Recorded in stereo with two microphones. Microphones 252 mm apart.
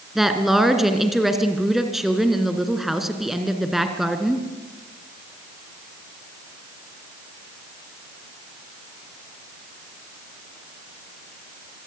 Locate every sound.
0.1 s a woman speaking: centre (ahead or behind), 2.5 m